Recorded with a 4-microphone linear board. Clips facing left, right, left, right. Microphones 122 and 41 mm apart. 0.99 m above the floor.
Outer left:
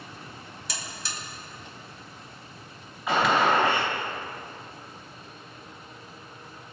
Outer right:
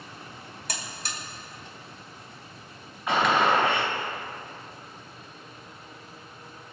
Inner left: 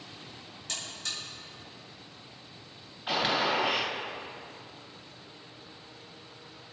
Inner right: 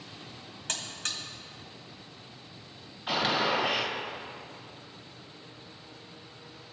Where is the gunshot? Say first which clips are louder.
Even, even; centre (ahead or behind), 2.5 m.